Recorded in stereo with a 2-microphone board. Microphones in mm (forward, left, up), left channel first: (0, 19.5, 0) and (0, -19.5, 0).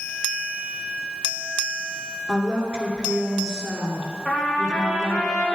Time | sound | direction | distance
2.3 | a woman speaking | 15° right (ahead or behind) | 1.6 m
4.2 | a trumpet | 70° left (ahead or behind) | 3.5 m